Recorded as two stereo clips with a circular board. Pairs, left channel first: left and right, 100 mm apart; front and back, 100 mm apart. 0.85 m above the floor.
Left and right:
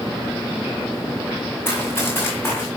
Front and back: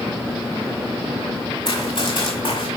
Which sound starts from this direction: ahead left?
Running footsteps, at 1.6 s.